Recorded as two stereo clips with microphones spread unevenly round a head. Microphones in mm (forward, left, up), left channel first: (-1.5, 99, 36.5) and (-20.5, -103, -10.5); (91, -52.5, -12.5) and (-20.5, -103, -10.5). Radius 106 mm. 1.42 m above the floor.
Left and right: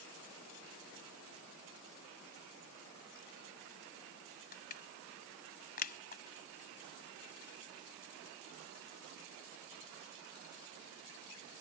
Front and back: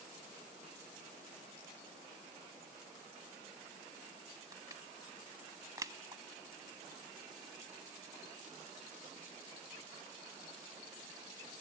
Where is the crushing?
130° left.